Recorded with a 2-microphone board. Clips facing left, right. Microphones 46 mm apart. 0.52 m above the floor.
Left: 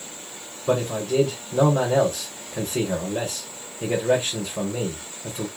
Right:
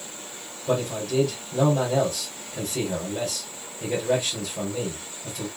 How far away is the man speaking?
About 1.9 m.